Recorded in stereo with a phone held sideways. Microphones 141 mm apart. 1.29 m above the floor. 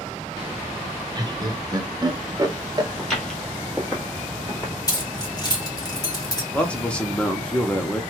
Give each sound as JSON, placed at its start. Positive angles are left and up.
{"t": 1.1, "sound": "laughter", "side_deg": -30, "distance_m": 0.6}
{"t": 3.0, "sound": "footsteps", "side_deg": 0, "distance_m": 1.6}
{"t": 4.9, "sound": "keys jangling", "side_deg": 25, "distance_m": 1.3}
{"t": 6.5, "sound": "a man speaking", "side_deg": 10, "distance_m": 0.7}